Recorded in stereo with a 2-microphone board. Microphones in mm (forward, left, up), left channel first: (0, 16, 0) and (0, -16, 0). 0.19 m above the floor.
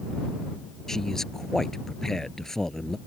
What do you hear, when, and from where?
0.9 s a man speaking: 15° left (ahead or behind)